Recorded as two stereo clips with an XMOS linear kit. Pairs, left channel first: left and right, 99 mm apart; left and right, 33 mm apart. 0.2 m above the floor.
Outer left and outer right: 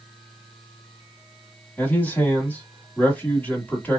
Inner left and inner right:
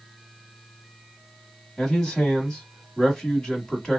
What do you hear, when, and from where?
1.8 s a man speaking: 15° left (ahead or behind), 1.2 m